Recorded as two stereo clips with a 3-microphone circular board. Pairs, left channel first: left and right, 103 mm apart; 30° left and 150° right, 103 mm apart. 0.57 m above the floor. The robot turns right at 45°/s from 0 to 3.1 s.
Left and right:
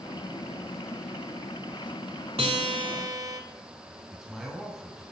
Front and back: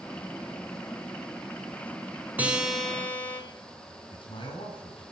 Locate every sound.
2.4 s a guitar: 75° right, 2.5 m; by 3.4 s 45° right, 2.5 m
4.1 s a man speaking: 5° right, 5 m